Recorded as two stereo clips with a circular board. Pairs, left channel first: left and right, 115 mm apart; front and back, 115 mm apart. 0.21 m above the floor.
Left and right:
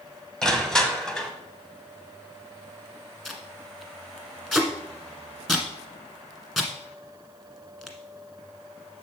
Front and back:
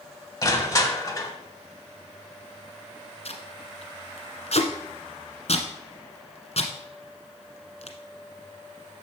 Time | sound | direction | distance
0.4 | crushing | 10° left | 1.0 m
3.2 | tape being pulled | 5° left | 1.3 m